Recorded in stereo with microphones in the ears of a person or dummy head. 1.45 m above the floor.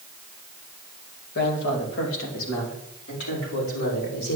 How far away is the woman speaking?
About 2.0 m.